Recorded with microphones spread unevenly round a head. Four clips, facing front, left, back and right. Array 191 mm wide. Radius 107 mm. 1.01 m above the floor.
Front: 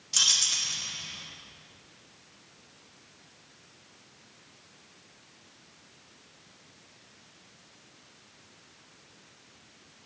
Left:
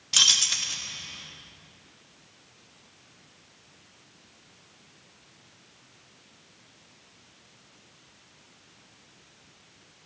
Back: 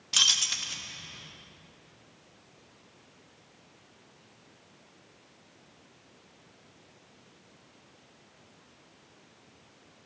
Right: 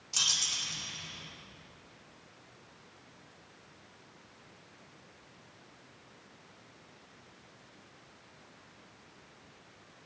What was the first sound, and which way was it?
Keys jangling, 105° left.